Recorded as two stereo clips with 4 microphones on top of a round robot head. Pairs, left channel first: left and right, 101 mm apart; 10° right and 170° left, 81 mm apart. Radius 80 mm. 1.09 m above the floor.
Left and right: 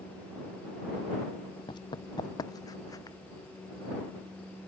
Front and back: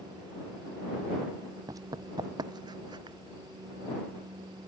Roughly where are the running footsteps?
Behind left.